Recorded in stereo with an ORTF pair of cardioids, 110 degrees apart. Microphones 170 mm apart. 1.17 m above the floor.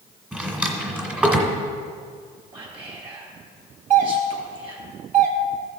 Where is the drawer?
10° right, 1.9 m.